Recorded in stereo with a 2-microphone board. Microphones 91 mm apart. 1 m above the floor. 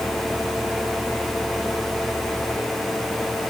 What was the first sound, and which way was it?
Only background noise.